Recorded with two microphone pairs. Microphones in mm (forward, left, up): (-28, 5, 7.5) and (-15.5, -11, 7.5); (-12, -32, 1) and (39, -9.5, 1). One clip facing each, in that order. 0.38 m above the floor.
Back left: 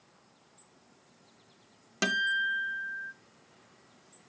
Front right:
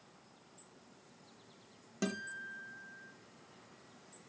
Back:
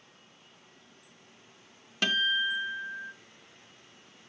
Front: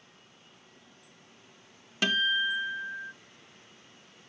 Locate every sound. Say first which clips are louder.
2.0 s a guitar: back left 13 dB, front 1 dB; 110° left, 0.6 m